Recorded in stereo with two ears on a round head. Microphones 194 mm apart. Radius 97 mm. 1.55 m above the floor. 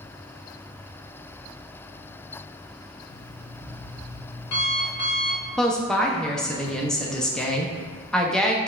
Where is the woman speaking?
5° left (ahead or behind), 0.5 m.